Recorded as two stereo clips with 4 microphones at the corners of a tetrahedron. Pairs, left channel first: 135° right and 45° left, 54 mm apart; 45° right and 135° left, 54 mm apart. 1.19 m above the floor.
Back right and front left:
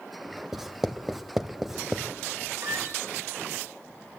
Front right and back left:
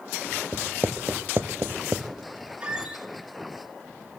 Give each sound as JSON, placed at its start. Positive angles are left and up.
{"t": 0.5, "sound": "writing", "azimuth_deg": 125, "distance_m": 1.1}
{"t": 2.6, "sound": "a squeak", "azimuth_deg": 65, "distance_m": 2.5}